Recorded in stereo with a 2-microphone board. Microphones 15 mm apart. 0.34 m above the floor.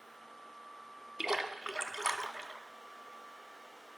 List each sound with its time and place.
1.2 s a splash: 45° right (ahead or behind), 0.6 m